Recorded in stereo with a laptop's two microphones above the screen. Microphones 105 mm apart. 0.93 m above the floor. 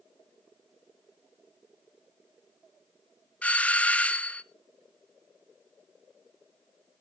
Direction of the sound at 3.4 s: 15° left (ahead or behind).